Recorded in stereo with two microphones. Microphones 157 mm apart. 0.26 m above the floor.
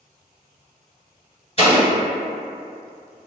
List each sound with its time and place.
1.6 s an explosion: 40° left (ahead or behind), 1.9 m